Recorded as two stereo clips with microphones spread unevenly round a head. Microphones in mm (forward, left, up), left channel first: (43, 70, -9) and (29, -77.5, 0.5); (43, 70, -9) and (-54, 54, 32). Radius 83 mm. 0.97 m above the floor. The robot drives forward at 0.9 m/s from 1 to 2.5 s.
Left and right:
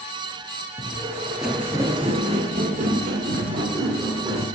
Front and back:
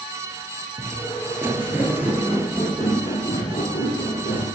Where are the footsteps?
155° left, 1.6 m; by 4.5 s 55° right, 3.5 m.